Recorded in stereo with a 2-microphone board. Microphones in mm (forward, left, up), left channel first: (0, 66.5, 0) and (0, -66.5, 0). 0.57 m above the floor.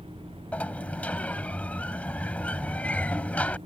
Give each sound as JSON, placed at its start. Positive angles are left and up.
{"t": 0.5, "sound": "a sliding door", "side_deg": 10}